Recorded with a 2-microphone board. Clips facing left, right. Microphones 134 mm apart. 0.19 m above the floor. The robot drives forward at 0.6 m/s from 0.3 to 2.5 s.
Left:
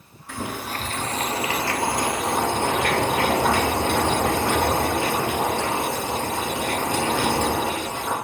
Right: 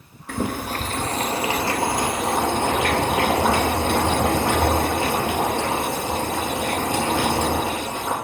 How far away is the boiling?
About 0.6 m.